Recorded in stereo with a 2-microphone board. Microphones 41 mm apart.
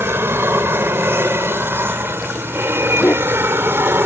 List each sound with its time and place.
0.0 s an aircraft: 70° right (ahead or behind)
3.0 s a dog barking: 45° left (ahead or behind)